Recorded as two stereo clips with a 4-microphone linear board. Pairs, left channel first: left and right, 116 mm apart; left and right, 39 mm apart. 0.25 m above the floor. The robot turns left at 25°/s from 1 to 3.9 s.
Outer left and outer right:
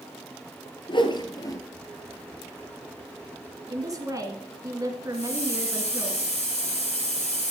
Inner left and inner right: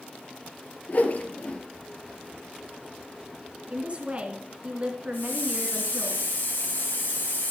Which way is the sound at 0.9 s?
45° left (ahead or behind).